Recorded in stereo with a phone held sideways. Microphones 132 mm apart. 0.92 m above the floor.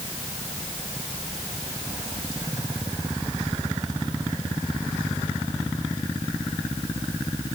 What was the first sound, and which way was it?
Only background noise.